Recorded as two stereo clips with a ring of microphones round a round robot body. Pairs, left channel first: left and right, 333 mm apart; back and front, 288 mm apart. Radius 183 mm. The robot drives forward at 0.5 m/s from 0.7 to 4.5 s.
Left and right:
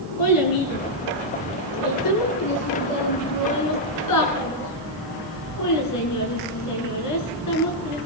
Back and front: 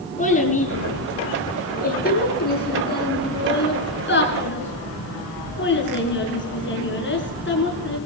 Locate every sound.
0.2 s a child speaking: 115° left, 6 m; by 8.0 s 130° left, 7 m